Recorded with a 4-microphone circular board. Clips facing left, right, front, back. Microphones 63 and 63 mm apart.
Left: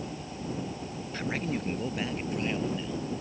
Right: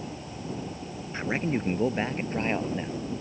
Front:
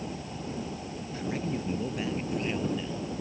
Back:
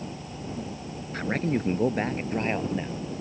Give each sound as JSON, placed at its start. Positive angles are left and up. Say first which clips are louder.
{"t": 1.1, "sound": "a man speaking", "louder": "right 4 dB, back 6 dB", "azimuth_deg": -155}